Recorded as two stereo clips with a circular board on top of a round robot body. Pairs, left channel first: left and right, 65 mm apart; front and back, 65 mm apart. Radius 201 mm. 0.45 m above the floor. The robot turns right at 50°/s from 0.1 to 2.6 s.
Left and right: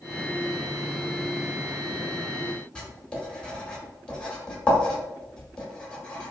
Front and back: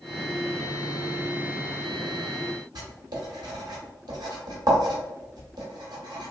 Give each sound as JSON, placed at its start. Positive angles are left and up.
{"t": 2.8, "sound": "writing", "azimuth_deg": 165, "distance_m": 1.0}